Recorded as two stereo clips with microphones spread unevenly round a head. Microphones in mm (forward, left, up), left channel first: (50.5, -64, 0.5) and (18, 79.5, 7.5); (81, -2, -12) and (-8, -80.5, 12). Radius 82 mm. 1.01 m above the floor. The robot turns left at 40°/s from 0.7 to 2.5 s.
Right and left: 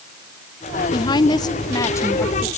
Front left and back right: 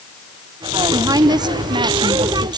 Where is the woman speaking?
80° right, 0.8 m; by 2.5 s 140° right, 0.8 m.